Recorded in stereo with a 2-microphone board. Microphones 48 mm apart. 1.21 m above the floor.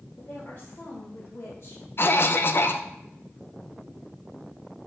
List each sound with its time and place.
0.2 s a woman speaking: 45° left (ahead or behind), 1.9 m; by 1.8 s 65° left (ahead or behind), 2.5 m
2.0 s a cough: 50° left (ahead or behind), 0.5 m